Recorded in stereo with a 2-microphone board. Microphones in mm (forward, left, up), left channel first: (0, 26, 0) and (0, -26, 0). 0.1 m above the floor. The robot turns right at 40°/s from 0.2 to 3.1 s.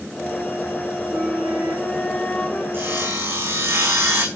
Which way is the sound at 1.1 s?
45° right.